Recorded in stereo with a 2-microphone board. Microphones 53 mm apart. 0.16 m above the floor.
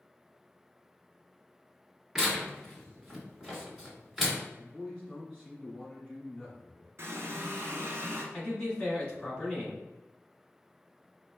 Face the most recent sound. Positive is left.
turn(degrees=20)  # may be behind; listen again after turning